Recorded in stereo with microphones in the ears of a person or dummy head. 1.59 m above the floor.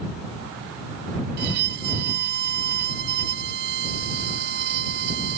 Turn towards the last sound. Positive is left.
turn(degrees=-50)  # may be behind; listen again after turning